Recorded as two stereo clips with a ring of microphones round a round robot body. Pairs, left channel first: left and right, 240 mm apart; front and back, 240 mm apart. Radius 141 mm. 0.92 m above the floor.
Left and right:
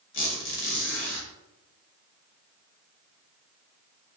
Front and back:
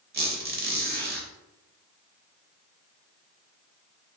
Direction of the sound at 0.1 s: 130° left.